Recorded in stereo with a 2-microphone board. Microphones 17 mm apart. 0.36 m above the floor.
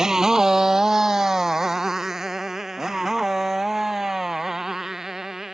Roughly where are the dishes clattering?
No dishes clattering in this recording.